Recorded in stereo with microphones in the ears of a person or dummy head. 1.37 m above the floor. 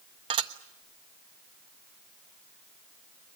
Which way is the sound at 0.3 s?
30° right (ahead or behind).